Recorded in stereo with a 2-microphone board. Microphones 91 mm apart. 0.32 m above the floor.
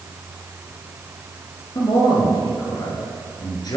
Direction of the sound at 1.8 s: 50° left (ahead or behind).